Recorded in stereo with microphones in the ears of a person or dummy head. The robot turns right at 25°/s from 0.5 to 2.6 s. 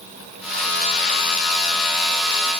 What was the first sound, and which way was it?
Only background noise.